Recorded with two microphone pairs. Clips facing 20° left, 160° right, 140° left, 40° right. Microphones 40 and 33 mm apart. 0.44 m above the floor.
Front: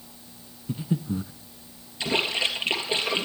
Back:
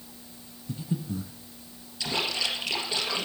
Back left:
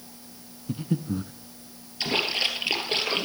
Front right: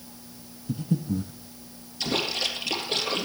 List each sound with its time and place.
0.7 s breathing: 80° left, 0.8 m
2.0 s a splash: 80° left, 3 m